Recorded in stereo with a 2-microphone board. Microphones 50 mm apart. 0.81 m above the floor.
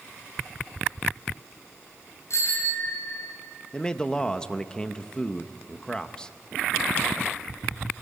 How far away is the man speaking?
About 0.8 m.